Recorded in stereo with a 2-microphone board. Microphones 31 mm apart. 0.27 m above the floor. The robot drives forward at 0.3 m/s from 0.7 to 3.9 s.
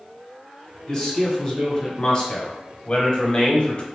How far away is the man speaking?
About 1.7 m.